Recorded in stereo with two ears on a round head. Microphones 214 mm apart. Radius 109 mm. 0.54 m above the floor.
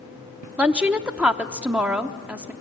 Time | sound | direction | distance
0.6 | a woman speaking | 5° right (ahead or behind) | 0.7 m